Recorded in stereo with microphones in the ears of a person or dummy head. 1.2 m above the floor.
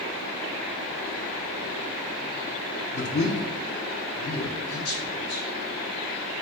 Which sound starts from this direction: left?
A man speaking, at 2.9 s.